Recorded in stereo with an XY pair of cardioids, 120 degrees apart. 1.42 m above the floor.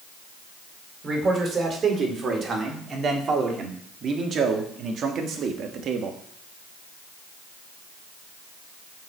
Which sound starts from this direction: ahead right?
A man speaking, at 1.0 s.